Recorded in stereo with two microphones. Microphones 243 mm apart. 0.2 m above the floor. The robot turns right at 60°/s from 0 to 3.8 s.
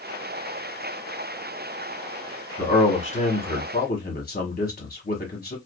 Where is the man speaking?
15° left, 1.2 m; by 5.6 s 85° left, 1.2 m.